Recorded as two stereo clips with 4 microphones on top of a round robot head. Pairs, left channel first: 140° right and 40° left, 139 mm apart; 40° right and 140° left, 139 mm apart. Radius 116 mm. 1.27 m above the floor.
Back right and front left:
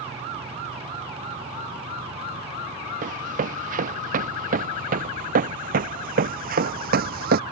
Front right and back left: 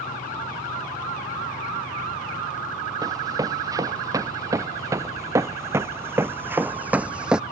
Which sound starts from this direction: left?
Running footsteps, at 3.0 s.